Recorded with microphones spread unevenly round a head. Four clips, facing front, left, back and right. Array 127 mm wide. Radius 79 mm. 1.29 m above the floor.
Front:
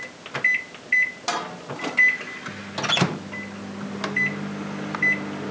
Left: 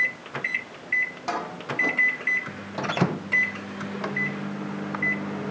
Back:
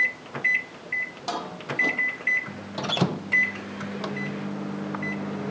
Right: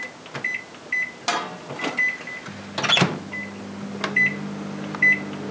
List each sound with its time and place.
Only background noise.